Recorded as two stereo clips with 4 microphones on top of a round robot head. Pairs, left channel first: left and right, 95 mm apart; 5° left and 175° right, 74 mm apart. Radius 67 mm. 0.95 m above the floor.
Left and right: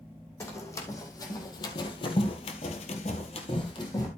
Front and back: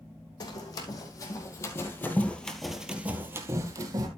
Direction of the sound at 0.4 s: 30° left.